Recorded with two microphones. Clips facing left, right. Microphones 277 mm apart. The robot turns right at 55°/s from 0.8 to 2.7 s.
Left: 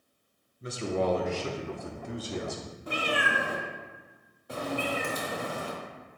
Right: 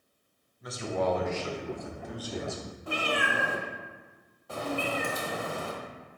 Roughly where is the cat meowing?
Centre.